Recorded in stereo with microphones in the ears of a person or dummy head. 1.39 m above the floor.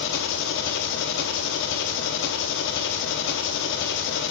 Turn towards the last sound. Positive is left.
turn(degrees=65)  # may be behind; listen again after turning